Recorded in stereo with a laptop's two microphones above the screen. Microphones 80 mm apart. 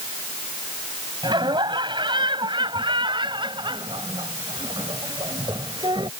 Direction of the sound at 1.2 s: 75° right (ahead or behind).